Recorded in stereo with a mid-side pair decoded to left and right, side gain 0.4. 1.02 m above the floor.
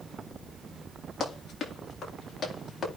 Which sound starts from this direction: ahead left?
Running footsteps, at 1.2 s.